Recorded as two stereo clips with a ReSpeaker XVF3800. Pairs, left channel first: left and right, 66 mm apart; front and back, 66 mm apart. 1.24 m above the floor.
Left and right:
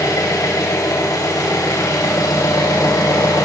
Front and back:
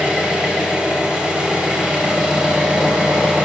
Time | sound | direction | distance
0.0 | an engine running | 105° left | 3.5 m